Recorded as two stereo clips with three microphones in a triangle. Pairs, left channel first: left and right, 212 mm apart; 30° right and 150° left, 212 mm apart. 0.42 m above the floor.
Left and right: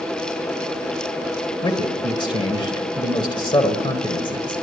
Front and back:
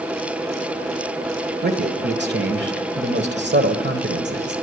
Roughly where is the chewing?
I don't hear chewing.